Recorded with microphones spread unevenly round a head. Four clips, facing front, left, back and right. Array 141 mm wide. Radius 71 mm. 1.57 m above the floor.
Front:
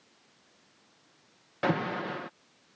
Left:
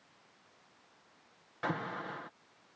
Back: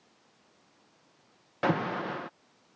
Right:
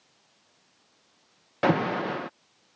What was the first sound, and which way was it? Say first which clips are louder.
An alarm: right 13 dB, back 1 dB; 90° right.